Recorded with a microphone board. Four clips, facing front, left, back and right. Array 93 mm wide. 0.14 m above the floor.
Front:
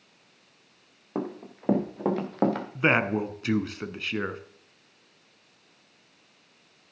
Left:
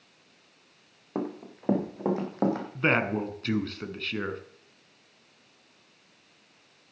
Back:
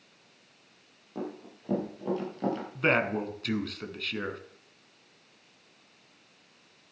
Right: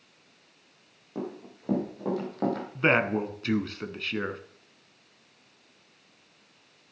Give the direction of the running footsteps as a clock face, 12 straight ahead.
11 o'clock.